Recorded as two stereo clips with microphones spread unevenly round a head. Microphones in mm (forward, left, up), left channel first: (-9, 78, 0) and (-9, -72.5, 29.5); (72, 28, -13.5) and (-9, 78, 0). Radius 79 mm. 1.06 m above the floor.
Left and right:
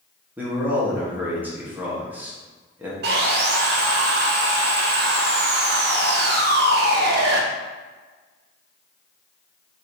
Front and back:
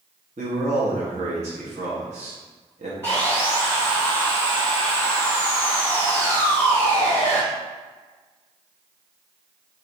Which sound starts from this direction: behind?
A man speaking, at 0.4 s.